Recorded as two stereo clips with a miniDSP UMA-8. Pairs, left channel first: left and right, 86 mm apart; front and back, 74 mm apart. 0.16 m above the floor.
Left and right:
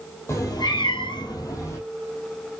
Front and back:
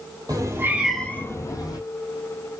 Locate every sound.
0.3 s a cat meowing: 145° left, 0.9 m; by 1.8 s 35° left, 1.2 m